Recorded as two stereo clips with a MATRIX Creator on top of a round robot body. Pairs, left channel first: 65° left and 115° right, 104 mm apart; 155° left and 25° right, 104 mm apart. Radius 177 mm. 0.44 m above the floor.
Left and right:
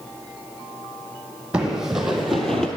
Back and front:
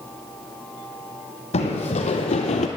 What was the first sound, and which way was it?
Running footsteps, 165° left.